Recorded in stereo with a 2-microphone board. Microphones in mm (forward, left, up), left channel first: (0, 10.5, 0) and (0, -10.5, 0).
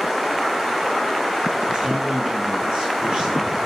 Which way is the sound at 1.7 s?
50° right (ahead or behind).